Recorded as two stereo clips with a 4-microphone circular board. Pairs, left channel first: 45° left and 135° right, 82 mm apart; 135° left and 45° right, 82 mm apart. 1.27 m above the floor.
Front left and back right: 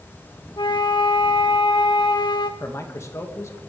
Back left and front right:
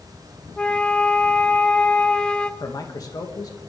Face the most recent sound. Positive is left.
turn(degrees=95)